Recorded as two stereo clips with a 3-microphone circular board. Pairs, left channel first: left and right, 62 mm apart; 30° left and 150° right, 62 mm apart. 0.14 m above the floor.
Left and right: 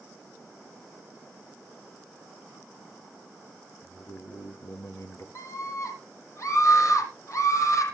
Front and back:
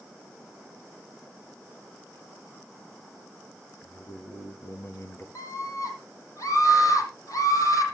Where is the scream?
55° left, 6 m.